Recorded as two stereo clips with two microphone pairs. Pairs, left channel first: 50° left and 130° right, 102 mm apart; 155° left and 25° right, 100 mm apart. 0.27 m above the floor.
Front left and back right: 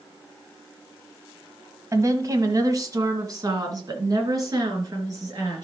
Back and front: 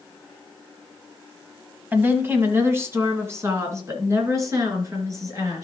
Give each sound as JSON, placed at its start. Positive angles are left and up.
{"t": 1.9, "sound": "a woman speaking", "azimuth_deg": -85, "distance_m": 1.5}